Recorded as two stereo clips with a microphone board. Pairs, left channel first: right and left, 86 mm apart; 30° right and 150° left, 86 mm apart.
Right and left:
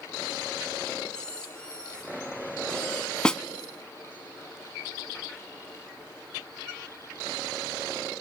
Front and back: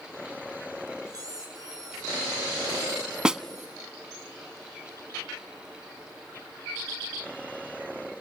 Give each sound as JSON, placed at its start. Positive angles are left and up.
{"t": 1.1, "sound": "a squeak", "azimuth_deg": -170, "distance_m": 5.0}
{"t": 3.2, "sound": "a snare drum", "azimuth_deg": -150, "distance_m": 0.6}